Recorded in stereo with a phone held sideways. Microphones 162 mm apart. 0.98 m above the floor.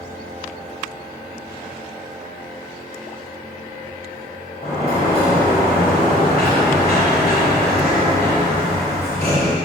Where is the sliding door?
70° left (ahead or behind), 2.5 m.